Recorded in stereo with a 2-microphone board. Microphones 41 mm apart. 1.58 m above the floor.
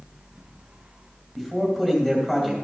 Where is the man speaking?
15° left (ahead or behind), 2.5 m.